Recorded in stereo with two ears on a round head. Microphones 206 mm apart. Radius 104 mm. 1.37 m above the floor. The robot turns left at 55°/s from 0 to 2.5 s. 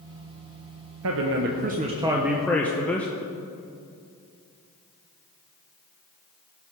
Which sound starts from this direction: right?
A man speaking, at 1.0 s.